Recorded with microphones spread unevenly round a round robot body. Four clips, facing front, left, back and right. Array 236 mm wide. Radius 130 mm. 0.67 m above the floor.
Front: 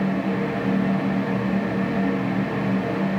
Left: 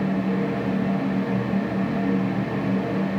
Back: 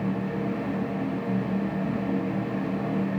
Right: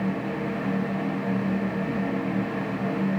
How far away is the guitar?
I don't hear a guitar.